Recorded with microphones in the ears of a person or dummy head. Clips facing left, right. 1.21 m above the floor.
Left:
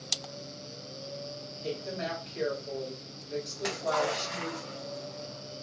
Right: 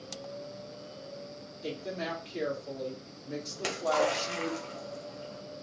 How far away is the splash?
About 0.7 m.